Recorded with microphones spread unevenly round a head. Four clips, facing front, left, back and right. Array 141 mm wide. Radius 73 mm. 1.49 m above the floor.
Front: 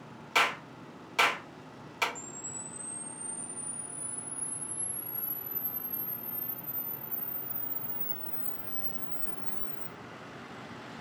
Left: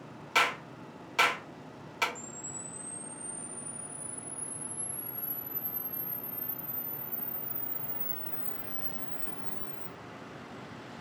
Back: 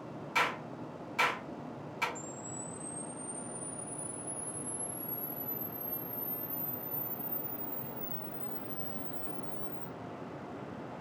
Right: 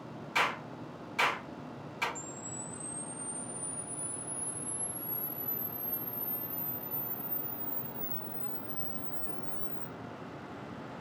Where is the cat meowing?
No cat meowing in this recording.